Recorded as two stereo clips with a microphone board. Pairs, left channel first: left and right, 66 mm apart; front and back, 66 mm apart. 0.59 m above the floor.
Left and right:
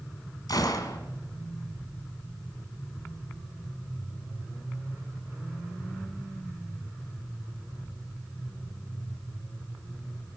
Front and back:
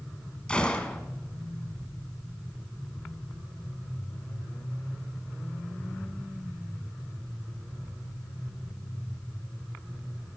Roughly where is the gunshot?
Left.